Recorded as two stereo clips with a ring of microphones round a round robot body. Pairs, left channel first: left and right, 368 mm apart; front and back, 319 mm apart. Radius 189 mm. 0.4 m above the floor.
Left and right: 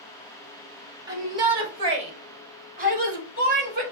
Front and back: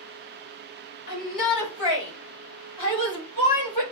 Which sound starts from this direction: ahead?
A shout, at 1.1 s.